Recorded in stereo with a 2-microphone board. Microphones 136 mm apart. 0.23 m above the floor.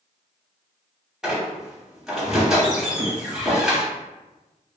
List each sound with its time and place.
1.2 s a squeak: 5° right (ahead or behind), 0.6 m